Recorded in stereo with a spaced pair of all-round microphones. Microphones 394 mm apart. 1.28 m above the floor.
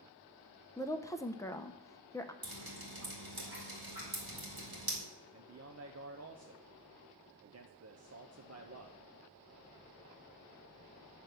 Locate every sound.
0.8 s a woman speaking: 10° left (ahead or behind), 0.5 m
2.4 s dripping: 60° right (ahead or behind), 2 m
5.3 s a man speaking: 40° right (ahead or behind), 0.6 m